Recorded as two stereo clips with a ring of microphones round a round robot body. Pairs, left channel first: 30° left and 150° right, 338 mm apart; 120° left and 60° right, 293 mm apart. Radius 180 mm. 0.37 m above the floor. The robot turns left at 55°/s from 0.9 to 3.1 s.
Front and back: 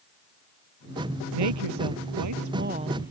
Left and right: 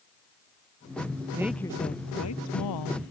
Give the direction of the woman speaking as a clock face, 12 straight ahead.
5 o'clock.